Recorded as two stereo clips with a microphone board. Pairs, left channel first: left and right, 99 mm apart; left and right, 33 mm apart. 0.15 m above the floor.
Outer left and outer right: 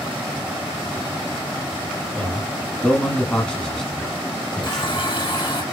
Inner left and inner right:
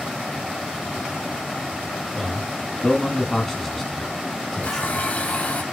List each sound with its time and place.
2.1 s a man speaking: 10° left (ahead or behind), 2 m; by 5.6 s 5° left (ahead or behind), 1.5 m
4.6 s a running tap: 50° left (ahead or behind), 2 m